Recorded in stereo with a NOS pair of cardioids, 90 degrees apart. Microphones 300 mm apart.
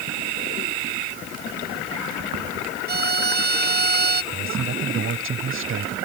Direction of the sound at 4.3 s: 45° right.